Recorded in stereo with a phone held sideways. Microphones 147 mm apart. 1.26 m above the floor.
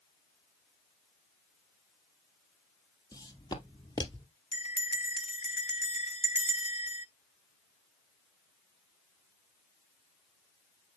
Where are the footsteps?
25° left (ahead or behind), 2.0 m; by 4.3 s 30° left (ahead or behind), 1.3 m.